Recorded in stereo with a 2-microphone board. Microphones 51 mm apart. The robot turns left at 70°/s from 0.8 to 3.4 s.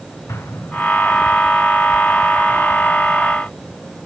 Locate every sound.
0.3 s an explosion: 65° left (ahead or behind), 2.5 m